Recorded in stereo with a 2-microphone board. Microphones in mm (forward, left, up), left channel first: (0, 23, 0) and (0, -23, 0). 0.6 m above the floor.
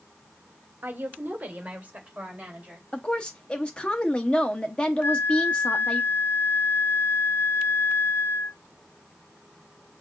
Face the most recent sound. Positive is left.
turn(degrees=45)  # may be behind; listen again after turning